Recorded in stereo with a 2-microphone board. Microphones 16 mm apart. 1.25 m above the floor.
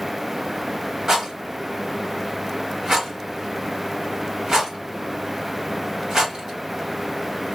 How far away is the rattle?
About 1.7 m.